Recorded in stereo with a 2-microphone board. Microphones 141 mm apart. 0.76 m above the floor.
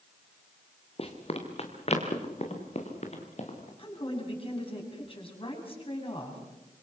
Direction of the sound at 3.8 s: 40° left (ahead or behind).